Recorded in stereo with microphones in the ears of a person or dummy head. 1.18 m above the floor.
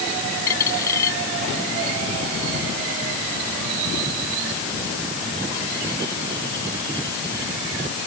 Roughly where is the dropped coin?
Centre.